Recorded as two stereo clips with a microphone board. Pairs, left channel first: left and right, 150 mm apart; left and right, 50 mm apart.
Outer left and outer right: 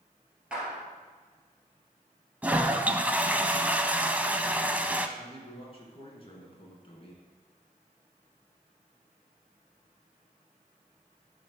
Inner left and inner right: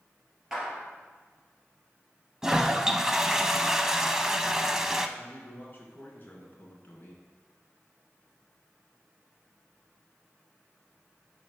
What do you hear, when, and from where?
0.5 s a clap: 5° right (ahead or behind), 2.5 m
2.4 s a toilet flushing: 10° right (ahead or behind), 0.5 m
5.2 s a man speaking: 40° left (ahead or behind), 2 m